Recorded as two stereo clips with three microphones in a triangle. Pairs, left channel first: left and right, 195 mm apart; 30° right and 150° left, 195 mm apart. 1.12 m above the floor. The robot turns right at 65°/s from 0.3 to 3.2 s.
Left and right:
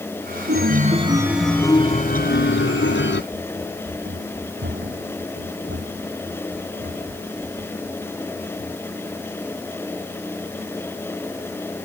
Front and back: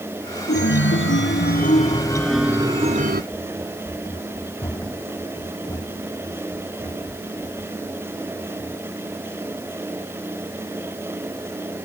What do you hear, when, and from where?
0.5 s a chime: 60° right; by 3.2 s 115° left
3.3 s running footsteps: 105° right; by 9.6 s 100° right